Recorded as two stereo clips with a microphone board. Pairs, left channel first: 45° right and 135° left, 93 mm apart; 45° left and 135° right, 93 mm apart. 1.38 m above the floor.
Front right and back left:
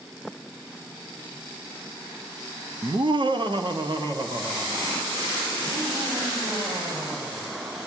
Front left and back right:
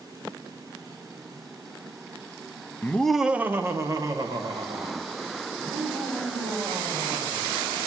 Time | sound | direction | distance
2.8 | laughter | 105° left | 0.6 m